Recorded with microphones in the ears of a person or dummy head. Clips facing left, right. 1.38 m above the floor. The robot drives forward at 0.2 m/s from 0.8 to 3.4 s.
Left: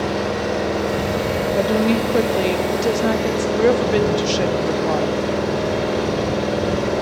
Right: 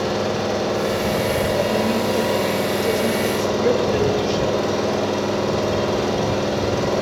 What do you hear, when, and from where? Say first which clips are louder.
0.0 s an engine running: even; 20° left (ahead or behind), 3 m
1.6 s a woman speaking: left 2 dB; 85° left, 0.7 m; by 3.5 s 60° left (ahead or behind), 0.7 m
3.6 s a woman speaking: left 3 dB; 85° left, 0.6 m